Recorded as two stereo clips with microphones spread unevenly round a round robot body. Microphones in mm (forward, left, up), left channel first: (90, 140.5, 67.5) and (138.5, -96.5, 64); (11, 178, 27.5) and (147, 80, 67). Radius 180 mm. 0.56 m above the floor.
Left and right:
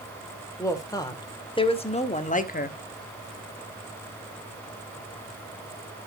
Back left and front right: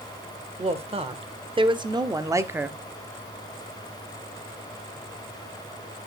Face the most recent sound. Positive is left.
turn(degrees=55)